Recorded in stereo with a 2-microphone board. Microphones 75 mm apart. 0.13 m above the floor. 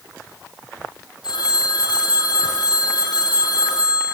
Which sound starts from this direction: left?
A phone ringing, at 1.2 s.